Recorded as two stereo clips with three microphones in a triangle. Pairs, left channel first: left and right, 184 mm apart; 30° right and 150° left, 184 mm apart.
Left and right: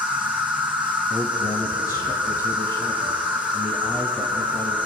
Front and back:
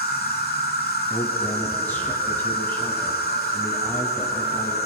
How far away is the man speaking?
About 1.2 m.